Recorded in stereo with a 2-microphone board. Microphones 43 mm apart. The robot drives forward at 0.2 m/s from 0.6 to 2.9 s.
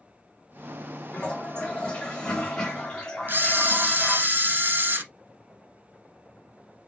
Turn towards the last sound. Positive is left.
turn(degrees=-55)  # may be behind; listen again after turning